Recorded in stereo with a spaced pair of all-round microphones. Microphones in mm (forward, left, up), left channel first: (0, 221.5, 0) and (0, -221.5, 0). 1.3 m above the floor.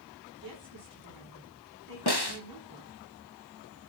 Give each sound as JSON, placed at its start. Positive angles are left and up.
{"t": 0.4, "sound": "a woman speaking", "side_deg": -50, "distance_m": 9.5}
{"t": 2.1, "sound": "a snare drum", "side_deg": 60, "distance_m": 1.4}